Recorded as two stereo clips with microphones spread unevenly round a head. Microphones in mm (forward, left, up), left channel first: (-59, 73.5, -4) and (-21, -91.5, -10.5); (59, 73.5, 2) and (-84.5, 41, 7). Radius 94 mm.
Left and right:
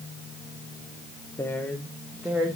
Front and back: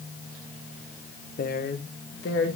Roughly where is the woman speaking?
Ahead left.